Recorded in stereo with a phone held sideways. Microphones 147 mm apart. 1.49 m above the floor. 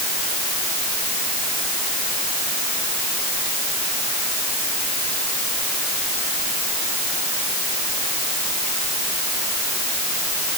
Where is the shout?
I don't hear a shout.